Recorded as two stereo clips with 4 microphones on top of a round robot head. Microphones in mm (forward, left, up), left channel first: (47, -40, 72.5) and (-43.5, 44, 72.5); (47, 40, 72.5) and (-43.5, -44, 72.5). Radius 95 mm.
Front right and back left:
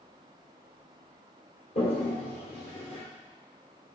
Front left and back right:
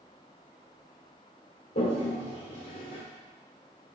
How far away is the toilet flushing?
About 1.6 m.